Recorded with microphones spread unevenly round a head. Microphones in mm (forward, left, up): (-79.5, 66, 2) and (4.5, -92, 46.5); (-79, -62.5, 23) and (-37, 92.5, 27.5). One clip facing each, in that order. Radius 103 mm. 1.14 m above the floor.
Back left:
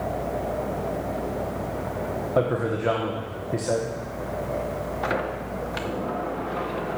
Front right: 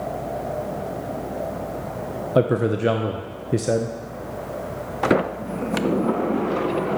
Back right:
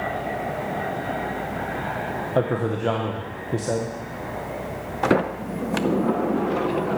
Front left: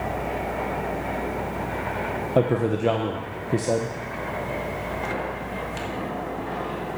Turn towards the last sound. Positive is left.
turn(degrees=-95)